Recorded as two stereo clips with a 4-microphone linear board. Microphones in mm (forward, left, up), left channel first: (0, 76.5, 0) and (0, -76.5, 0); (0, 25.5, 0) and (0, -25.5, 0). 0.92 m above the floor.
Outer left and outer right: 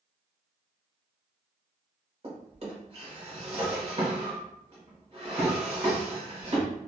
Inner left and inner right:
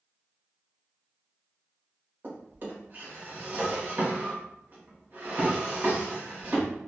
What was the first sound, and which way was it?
A drawer, 40° right (ahead or behind).